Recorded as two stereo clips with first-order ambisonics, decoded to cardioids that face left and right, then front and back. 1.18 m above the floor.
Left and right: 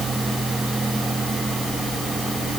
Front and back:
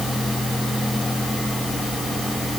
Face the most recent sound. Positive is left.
No sound to turn to.